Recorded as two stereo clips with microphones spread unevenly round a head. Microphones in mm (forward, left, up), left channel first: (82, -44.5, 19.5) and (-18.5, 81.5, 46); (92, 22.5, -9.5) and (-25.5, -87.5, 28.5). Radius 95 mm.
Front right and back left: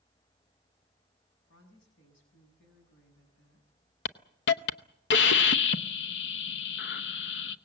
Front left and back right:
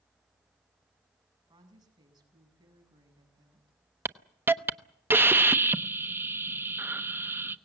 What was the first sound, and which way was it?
A woman speaking, 70° right.